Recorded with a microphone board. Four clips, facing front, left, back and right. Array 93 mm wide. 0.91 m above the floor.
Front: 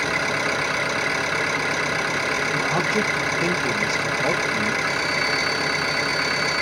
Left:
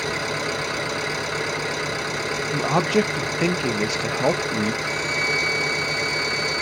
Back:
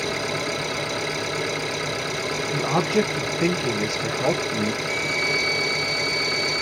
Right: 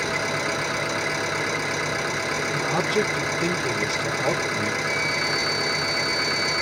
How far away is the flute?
About 4.5 m.